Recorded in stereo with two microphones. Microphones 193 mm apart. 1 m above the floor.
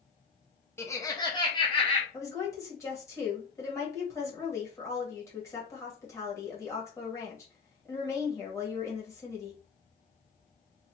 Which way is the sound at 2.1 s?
15° left (ahead or behind).